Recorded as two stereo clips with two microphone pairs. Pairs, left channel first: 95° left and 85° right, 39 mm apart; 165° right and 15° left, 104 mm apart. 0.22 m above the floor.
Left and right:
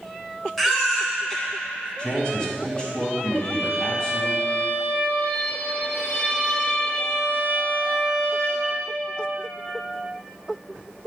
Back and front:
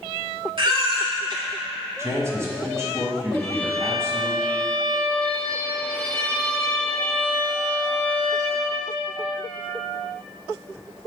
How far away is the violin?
About 1.9 m.